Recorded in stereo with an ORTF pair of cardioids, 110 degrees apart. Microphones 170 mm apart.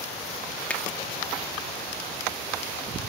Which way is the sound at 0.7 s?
5° left.